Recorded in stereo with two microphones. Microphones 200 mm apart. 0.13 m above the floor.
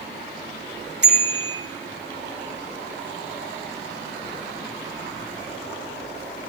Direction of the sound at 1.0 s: 60° right (ahead or behind).